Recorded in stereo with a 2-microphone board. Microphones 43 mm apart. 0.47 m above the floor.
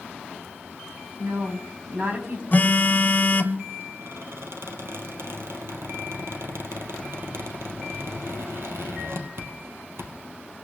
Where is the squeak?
75° right (ahead or behind), 1.9 m.